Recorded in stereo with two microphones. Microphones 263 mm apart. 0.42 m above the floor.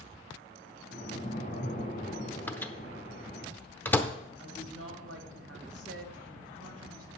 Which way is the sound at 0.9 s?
25° left (ahead or behind).